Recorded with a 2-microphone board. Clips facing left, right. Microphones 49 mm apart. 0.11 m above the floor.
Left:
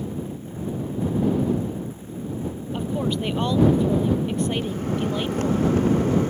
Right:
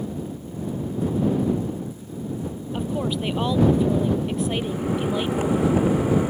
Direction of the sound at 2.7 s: 5° right (ahead or behind).